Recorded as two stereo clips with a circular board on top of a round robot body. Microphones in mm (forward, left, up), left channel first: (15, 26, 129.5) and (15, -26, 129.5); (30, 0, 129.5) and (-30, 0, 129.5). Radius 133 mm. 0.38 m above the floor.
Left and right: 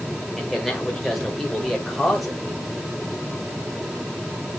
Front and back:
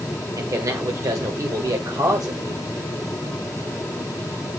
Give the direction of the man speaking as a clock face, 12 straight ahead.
6 o'clock.